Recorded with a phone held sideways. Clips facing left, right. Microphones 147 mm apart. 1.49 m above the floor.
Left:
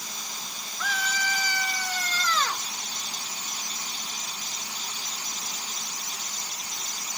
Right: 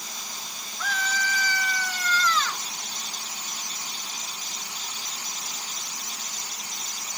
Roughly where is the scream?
Centre.